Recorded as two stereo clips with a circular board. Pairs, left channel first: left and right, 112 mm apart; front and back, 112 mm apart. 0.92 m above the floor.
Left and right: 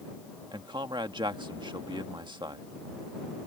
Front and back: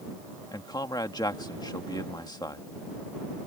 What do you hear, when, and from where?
0.5 s a man speaking: 50° right